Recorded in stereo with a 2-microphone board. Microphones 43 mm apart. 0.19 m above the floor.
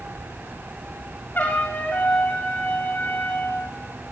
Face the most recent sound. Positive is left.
turn(degrees=45)  # may be behind; listen again after turning